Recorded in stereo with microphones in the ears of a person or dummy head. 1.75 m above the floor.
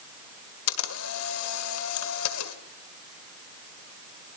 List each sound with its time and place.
0.7 s a camera shutter: 90° left, 2 m